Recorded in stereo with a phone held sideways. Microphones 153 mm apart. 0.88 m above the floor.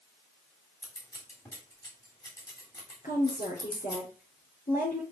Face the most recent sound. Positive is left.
turn(degrees=65)  # may be behind; listen again after turning